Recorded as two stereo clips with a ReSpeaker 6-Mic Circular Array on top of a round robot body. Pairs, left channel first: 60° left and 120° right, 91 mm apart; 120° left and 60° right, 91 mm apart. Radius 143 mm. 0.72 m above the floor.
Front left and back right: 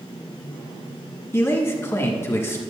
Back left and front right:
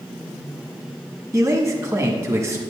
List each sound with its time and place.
1.3 s a man speaking: 5° right, 1.4 m